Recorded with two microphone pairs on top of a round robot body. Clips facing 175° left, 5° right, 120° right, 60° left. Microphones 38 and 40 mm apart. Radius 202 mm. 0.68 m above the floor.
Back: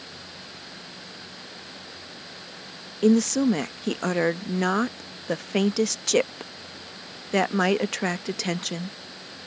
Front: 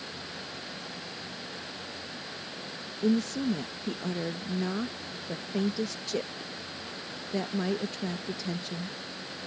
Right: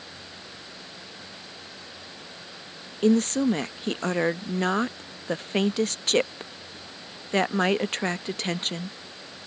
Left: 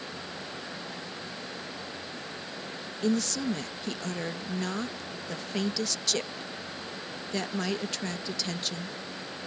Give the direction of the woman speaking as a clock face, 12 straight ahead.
6 o'clock.